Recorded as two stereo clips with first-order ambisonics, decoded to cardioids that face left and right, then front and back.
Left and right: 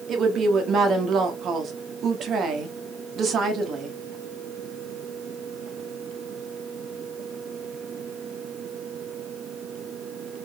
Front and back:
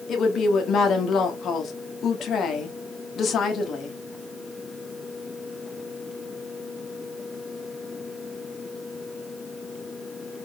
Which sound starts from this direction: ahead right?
A woman speaking, at 0.1 s.